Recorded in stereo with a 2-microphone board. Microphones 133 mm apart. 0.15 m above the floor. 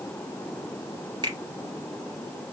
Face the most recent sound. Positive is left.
turn(degrees=-35)  # may be behind; listen again after turning